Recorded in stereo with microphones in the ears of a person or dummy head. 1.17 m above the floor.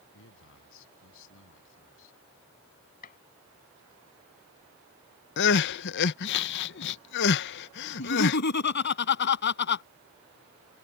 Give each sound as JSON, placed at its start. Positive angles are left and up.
{"t": 0.1, "sound": "a man speaking", "side_deg": 75}
{"t": 3.0, "sound": "a gunshot", "side_deg": 45}
{"t": 5.4, "sound": "crying", "side_deg": 60}
{"t": 8.0, "sound": "laughter", "side_deg": 55}